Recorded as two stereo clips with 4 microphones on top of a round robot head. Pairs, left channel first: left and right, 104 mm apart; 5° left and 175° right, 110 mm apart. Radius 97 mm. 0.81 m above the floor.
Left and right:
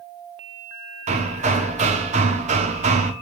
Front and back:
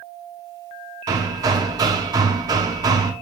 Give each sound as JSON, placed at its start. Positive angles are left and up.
{"t": 1.1, "sound": "hammering", "azimuth_deg": -110, "distance_m": 0.8}